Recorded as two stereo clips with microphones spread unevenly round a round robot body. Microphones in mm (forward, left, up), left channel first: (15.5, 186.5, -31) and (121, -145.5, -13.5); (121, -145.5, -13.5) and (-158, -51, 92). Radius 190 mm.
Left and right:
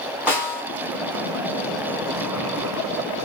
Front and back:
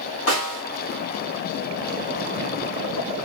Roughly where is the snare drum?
Ahead.